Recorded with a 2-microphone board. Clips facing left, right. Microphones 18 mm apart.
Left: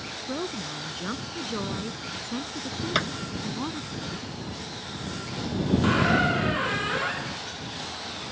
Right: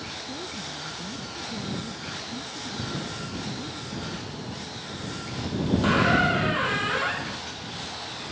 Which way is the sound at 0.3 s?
85° left.